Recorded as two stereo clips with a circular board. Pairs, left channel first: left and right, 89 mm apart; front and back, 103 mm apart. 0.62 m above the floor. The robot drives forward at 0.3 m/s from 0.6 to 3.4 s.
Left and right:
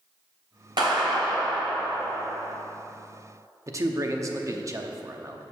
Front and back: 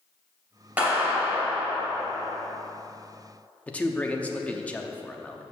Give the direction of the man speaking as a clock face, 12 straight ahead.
2 o'clock.